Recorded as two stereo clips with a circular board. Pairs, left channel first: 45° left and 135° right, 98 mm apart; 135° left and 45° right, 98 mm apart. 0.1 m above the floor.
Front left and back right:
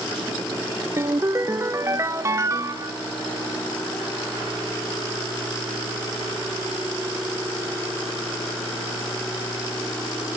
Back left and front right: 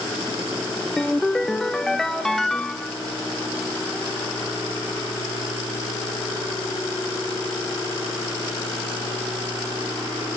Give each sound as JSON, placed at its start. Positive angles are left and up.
{"t": 1.0, "sound": "a ringtone", "azimuth_deg": -145, "distance_m": 0.5}